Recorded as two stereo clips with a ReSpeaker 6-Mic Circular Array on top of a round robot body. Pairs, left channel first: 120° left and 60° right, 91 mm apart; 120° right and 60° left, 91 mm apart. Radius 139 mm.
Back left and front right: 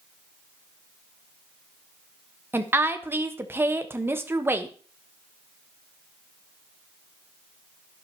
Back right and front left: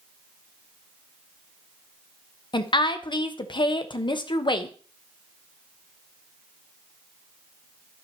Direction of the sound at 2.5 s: 120° right.